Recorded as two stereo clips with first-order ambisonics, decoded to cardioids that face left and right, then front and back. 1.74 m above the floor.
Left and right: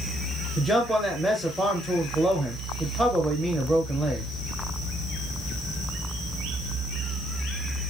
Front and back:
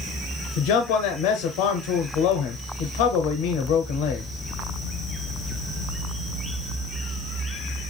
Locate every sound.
0.6 s a man speaking: 10° left, 0.8 m